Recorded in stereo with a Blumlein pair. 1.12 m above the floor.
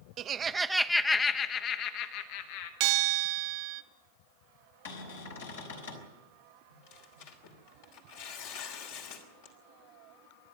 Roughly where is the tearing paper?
Ahead left.